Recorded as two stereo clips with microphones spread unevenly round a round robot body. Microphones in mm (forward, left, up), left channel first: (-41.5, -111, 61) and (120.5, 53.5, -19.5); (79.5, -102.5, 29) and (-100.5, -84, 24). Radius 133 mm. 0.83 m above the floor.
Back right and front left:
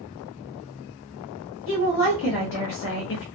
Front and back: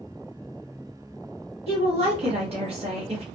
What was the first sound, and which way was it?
A woman speaking, 165° right.